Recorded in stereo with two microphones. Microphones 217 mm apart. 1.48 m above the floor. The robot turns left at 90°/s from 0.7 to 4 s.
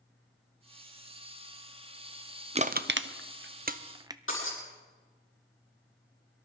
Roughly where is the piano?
No piano in this recording.